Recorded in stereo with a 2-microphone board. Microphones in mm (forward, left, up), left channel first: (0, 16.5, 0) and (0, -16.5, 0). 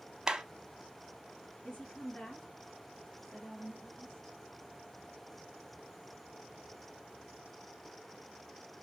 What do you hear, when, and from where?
0.3 s a clap: 15° right (ahead or behind), 0.8 m
1.6 s a woman speaking: 20° left (ahead or behind), 2.5 m